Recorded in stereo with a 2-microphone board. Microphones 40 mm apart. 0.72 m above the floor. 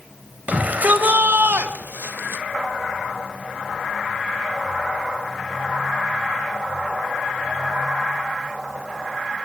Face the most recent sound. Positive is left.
turn(degrees=-75)  # may be behind; listen again after turning